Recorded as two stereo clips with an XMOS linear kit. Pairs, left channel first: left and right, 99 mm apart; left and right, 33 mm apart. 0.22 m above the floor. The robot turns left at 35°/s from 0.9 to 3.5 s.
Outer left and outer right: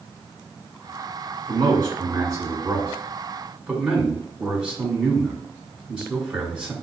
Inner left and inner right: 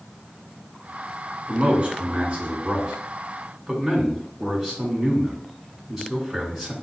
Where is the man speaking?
95° right, 2 m; by 6.7 s 165° right, 2 m.